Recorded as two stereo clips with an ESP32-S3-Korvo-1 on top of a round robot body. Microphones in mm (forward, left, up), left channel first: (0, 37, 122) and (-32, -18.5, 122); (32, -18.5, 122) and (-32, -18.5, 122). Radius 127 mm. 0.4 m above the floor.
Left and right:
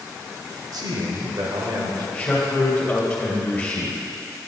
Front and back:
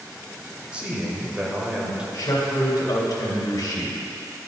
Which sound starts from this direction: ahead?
A man speaking, at 2.1 s.